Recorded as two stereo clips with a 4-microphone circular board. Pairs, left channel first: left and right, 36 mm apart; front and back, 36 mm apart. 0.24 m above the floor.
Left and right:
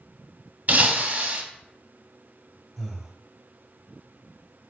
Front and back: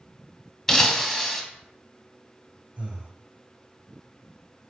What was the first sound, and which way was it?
Breaking glass, 80° right.